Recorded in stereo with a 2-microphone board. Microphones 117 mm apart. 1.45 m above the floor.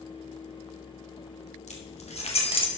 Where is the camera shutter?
No camera shutter in this recording.